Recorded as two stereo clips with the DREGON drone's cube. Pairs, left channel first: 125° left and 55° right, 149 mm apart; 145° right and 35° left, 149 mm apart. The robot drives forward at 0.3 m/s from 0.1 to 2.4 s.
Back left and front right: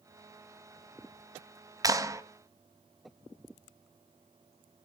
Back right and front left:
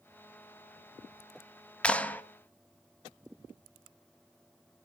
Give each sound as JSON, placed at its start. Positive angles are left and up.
{"t": 1.8, "sound": "a clap", "azimuth_deg": -70, "distance_m": 1.0}